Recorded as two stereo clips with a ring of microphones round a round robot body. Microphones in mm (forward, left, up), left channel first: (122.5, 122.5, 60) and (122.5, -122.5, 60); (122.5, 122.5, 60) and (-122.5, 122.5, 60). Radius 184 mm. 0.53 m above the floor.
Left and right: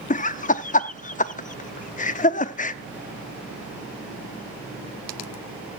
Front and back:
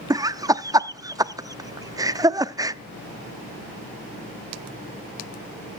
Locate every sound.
0.1 s laughter: 115° left, 0.8 m